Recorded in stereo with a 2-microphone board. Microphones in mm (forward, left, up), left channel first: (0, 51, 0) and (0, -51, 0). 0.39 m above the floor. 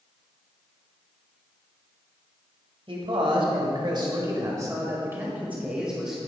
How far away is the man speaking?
About 1.8 m.